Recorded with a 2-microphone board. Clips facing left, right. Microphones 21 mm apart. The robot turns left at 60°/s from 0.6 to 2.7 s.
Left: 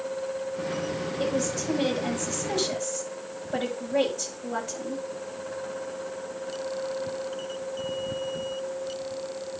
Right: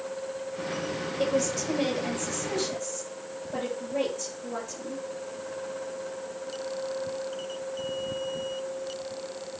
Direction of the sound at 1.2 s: 130° right.